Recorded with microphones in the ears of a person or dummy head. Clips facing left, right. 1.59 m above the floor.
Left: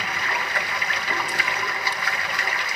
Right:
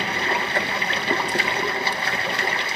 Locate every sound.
0.0 s running water: 30° right (ahead or behind), 1.9 m